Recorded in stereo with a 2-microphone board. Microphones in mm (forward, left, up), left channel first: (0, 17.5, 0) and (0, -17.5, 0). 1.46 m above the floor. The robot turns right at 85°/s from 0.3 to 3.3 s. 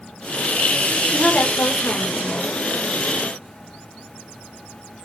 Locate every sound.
1.1 s a woman speaking: 30° left, 4 m; by 2.6 s 150° left, 4 m